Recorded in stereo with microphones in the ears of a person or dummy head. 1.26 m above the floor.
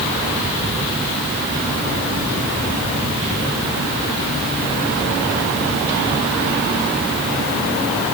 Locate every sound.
Only background noise.